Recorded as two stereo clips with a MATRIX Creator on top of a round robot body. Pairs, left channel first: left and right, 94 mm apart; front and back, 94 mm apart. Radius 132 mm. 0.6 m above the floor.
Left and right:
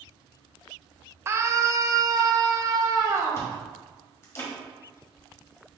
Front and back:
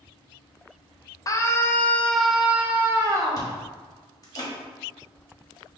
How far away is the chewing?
About 1.6 m.